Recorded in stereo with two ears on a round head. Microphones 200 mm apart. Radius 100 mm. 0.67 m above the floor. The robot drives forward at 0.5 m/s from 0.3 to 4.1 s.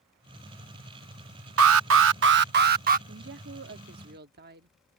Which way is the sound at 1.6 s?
65° right (ahead or behind).